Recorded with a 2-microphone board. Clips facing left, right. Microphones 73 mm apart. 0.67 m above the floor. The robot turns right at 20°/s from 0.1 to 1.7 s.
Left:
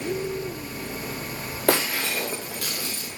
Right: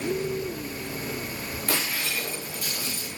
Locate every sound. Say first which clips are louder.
1.7 s breaking glass: left 8 dB; 75° left (ahead or behind), 4.5 m